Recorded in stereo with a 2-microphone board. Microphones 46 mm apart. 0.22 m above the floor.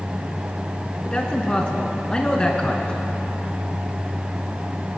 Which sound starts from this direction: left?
A man speaking, at 1.1 s.